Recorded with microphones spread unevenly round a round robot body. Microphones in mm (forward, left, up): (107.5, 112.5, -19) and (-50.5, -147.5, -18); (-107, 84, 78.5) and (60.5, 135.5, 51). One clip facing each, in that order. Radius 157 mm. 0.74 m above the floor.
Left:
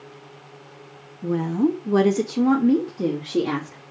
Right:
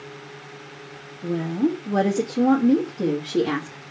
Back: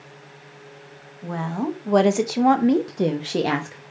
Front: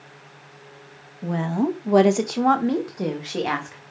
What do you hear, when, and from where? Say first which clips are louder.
1.2 s a woman speaking: left 2 dB, front 4 dB; 10° left, 1.1 m; by 3.8 s 155° left, 1.4 m